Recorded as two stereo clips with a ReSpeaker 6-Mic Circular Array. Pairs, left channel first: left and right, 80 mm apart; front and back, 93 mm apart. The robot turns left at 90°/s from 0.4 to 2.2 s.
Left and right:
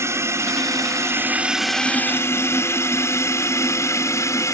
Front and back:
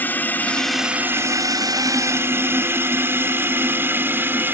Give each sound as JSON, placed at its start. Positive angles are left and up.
{"t": 0.0, "sound": "a drone", "azimuth_deg": -60}